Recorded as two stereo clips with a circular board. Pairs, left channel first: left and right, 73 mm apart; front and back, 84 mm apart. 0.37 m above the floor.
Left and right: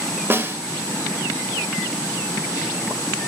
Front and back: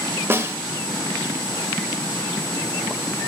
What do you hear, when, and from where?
0.3 s a snare drum: 130° right, 1.3 m